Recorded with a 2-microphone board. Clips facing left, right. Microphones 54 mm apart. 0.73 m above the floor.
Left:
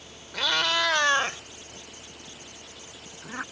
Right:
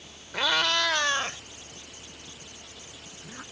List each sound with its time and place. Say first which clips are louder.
0.3 s a cat meowing: even; 20° right (ahead or behind); by 3.4 s 60° left (ahead or behind)